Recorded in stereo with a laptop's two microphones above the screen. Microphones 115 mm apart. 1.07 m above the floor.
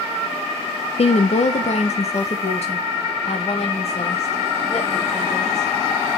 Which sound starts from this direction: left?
A woman speaking, at 1.0 s.